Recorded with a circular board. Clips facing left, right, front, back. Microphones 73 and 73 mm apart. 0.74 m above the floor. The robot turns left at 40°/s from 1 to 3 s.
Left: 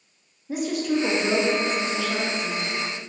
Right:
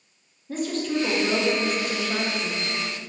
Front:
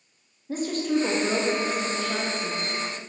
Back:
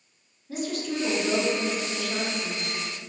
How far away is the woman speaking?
About 0.5 m.